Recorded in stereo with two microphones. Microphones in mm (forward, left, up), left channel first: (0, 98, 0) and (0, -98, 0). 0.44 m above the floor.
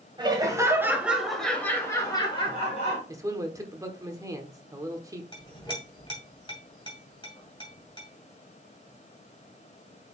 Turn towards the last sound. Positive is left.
turn(degrees=25)  # may be behind; listen again after turning